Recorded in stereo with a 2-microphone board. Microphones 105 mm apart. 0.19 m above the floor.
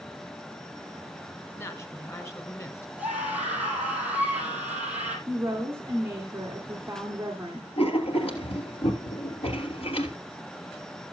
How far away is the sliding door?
No sliding door in this recording.